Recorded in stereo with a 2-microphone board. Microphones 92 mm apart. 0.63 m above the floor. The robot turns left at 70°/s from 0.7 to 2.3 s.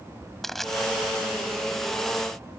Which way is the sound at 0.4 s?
5° left (ahead or behind).